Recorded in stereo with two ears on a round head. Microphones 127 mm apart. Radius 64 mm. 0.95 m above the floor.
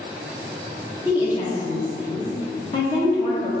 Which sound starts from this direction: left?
A woman speaking, at 1.1 s.